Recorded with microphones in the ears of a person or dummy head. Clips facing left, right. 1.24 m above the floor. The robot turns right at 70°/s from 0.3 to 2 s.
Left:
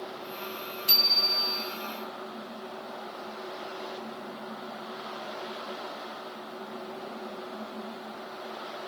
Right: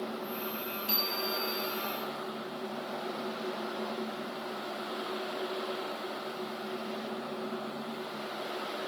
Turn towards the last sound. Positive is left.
turn(degrees=150)